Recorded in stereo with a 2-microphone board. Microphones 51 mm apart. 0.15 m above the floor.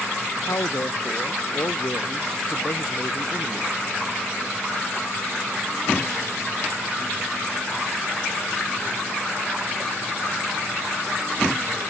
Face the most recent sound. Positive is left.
turn(degrees=70)  # may be behind; listen again after turning